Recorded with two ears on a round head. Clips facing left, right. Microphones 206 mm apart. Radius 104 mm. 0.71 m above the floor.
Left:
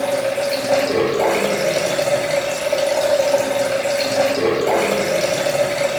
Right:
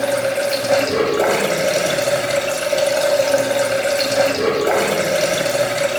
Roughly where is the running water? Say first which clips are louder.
Right 1 dB; centre.